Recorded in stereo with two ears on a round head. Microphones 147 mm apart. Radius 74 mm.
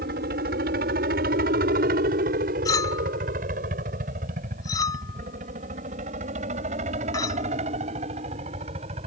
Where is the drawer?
I don't hear a drawer.